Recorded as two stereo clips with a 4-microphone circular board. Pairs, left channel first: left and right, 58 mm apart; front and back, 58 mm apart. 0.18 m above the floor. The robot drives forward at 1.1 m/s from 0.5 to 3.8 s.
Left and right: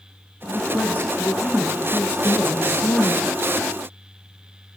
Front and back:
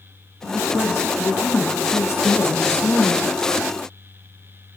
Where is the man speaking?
35° left, 10 m; by 3.2 s 45° left, 7.5 m.